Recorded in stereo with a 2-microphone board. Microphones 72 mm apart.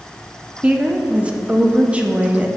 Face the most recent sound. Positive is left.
turn(degrees=-15)  # may be behind; listen again after turning